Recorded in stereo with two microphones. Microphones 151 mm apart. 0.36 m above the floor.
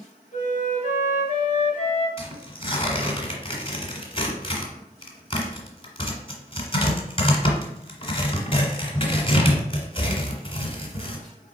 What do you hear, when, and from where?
0.3 s a flute: 55° left (ahead or behind), 1.1 m
2.2 s tearing paper: 40° left (ahead or behind), 1.3 m